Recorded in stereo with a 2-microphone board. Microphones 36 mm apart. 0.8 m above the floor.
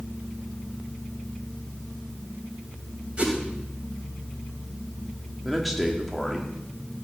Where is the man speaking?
Centre (ahead or behind), 2 m.